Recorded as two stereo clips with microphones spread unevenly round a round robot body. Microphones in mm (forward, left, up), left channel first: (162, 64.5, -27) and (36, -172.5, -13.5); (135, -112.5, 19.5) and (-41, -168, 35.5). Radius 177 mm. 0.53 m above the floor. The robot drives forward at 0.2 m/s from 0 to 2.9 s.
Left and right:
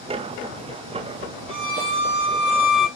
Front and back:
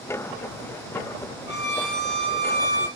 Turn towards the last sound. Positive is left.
turn(degrees=135)